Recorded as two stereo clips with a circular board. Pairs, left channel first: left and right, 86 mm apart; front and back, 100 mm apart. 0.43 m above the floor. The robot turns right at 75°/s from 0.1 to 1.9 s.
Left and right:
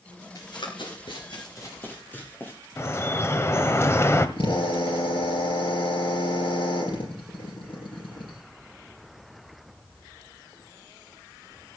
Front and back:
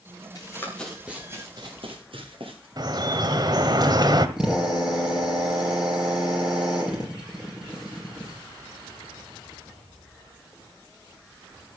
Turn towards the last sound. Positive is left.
turn(degrees=100)